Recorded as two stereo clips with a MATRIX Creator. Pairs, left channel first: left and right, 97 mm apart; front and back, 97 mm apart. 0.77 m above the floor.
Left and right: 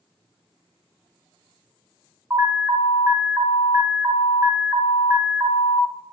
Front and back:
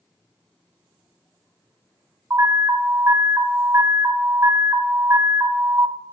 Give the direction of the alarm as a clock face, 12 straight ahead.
5 o'clock.